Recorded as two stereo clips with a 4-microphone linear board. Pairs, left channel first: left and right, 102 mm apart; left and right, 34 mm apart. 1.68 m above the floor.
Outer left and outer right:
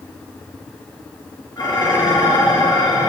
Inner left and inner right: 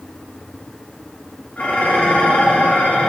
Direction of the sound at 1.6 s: 40° left (ahead or behind).